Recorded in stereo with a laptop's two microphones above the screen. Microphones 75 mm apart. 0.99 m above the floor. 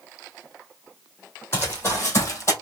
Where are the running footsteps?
30° left (ahead or behind), 1.5 m; by 2.5 s 40° left (ahead or behind), 1.2 m.